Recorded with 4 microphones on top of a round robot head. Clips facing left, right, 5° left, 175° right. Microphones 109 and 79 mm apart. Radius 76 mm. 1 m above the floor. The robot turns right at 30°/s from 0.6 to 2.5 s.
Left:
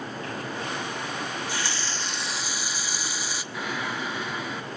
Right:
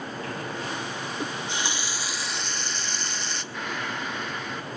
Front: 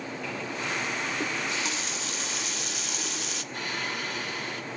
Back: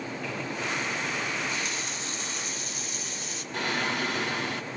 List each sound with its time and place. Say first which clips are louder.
1.2 s a running tap: even, front 1 dB; 35° right, 0.8 m; by 3.4 s 5° left, 0.8 m
3.5 s singing: left 2 dB, back 6 dB; 175° left, 1.9 m